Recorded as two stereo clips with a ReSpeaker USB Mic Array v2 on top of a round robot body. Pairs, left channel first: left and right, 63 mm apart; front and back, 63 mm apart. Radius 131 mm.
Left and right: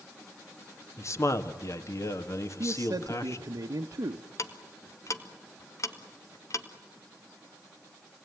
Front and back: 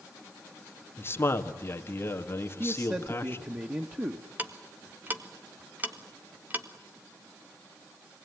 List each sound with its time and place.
1.0 s a man speaking: 50° left, 2.0 m
2.6 s a man speaking: 120° right, 1.5 m
4.4 s ticking: 120° left, 2 m